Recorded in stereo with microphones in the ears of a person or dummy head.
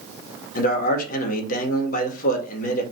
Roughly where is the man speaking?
Left.